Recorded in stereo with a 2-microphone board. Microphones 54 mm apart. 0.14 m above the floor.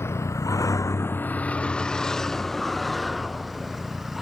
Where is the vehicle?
50° left (ahead or behind); by 4.2 s 5° right (ahead or behind).